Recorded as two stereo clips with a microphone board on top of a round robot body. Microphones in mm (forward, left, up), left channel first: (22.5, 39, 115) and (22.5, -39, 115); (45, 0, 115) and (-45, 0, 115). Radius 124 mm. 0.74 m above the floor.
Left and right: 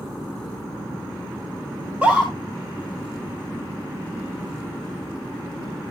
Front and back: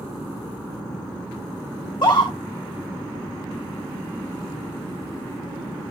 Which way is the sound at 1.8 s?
20° right.